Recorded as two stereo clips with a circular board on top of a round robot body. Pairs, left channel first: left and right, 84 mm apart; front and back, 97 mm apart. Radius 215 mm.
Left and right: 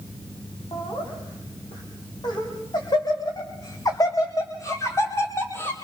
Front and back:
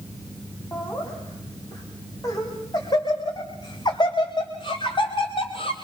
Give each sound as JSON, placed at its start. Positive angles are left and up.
{"t": 0.7, "sound": "laughter", "azimuth_deg": 60, "distance_m": 4.5}